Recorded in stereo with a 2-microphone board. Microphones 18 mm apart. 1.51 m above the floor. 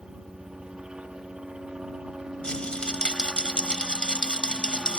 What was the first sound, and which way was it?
A helicopter, 50° right (ahead or behind).